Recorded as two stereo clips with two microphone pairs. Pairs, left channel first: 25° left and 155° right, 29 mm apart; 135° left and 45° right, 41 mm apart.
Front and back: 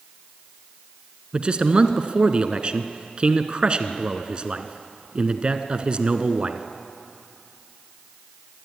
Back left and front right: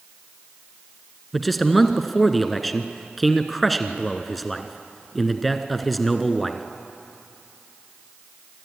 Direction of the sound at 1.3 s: 135° right.